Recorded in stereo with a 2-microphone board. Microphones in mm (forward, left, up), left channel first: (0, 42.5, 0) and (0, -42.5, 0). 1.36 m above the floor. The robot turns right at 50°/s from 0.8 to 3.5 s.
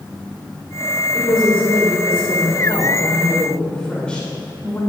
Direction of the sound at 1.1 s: 50° left.